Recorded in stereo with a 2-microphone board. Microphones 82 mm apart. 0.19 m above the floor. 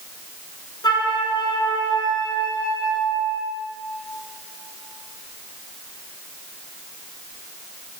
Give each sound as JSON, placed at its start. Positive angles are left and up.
{"t": 0.8, "sound": "a flute", "side_deg": 60, "distance_m": 1.7}